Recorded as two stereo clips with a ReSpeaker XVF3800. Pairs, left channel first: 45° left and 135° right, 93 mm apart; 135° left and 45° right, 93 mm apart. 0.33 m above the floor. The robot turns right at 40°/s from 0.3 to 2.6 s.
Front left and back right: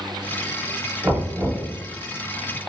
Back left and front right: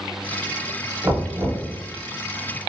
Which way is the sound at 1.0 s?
90° right.